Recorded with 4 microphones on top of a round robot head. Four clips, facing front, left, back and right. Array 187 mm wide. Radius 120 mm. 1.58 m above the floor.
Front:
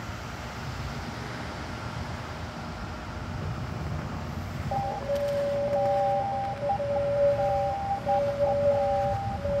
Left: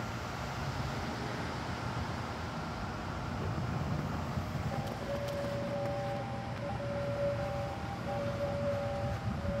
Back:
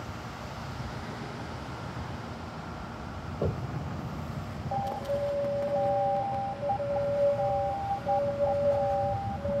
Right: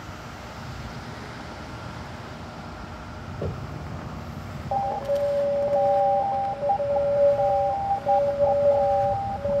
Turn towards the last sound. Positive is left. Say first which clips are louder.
# right 17 dB, front 2 dB
turn(degrees=-80)